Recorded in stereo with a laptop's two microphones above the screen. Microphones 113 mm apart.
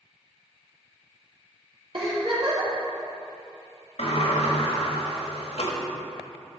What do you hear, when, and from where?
1.9 s a giggle: 50° right (ahead or behind), 2.5 m
4.0 s a sliding door: 70° left (ahead or behind), 1.4 m